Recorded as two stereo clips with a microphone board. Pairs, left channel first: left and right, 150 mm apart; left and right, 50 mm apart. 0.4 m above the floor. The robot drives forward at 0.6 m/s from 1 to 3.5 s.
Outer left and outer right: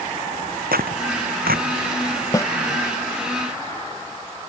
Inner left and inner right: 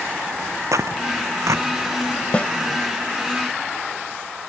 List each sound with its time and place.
0.7 s tearing paper: 85° right
2.3 s a snare drum: 25° left (ahead or behind)